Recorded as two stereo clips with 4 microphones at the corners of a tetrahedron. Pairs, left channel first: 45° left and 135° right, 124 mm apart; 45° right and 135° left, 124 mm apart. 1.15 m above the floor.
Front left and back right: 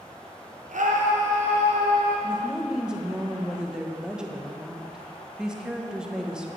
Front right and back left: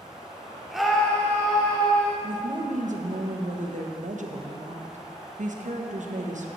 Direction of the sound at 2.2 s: 140° left.